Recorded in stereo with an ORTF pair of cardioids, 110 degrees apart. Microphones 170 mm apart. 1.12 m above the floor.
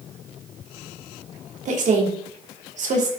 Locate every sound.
1.6 s a woman speaking: 45° right, 2.5 m